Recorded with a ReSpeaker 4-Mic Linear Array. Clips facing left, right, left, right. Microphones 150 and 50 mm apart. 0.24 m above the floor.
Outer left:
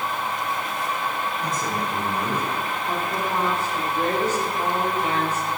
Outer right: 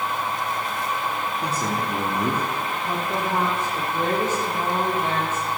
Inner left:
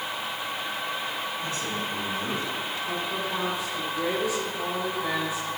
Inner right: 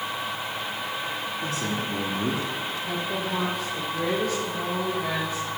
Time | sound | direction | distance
1.4 | a man speaking | 75° right (ahead or behind) | 5 m
2.8 | a woman speaking | 50° right (ahead or behind) | 6.5 m